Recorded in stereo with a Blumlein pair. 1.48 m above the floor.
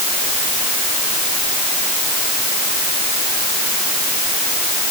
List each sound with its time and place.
Only background noise.